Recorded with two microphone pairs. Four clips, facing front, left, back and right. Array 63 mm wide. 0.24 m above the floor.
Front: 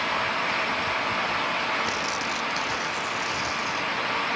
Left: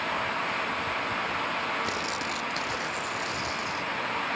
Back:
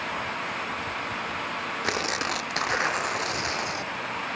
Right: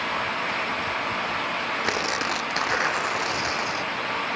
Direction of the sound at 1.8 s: 125° right.